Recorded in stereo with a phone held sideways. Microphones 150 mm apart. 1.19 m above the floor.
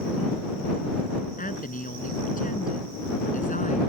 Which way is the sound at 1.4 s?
65° left (ahead or behind).